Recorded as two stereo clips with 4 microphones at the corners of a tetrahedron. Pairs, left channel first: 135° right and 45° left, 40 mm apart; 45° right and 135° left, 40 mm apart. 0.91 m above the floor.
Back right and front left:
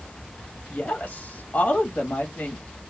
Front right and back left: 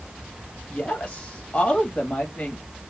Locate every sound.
0.7 s a woman speaking: 105° right, 1.6 m